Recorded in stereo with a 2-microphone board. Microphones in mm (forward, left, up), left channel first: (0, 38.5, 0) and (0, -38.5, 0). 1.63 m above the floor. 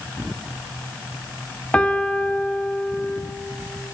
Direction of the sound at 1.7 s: 15° left (ahead or behind).